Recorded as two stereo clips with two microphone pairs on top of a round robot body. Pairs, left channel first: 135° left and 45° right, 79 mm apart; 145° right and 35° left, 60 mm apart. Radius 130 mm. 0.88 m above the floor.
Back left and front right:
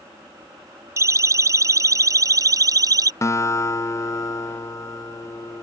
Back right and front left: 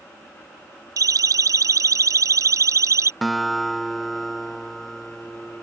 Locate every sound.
1.0 s a siren: 10° left; by 3.1 s straight ahead
3.2 s a guitar: 125° left